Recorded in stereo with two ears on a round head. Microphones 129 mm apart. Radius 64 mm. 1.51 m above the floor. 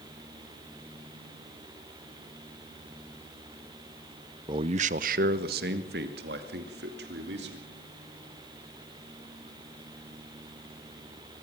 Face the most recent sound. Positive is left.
turn(degrees=-85)